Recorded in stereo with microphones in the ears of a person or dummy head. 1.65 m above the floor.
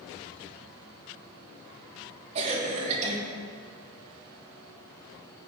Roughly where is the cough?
Right.